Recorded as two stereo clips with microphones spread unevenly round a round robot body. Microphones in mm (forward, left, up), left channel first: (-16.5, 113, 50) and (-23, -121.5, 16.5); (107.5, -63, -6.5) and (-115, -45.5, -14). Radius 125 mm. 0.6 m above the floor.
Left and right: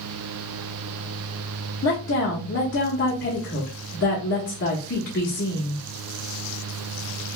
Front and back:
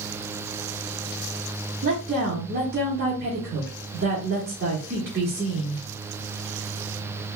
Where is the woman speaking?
130° left, 1.5 m.